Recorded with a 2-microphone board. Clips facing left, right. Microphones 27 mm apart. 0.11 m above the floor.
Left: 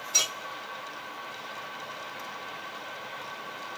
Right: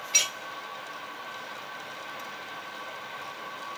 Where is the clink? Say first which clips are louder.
Right 1 dB; 45° right (ahead or behind), 1.8 m.